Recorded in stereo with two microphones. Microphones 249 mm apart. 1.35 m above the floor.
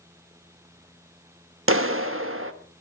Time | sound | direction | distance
1.7 | a clap | 55° right (ahead or behind) | 1.5 m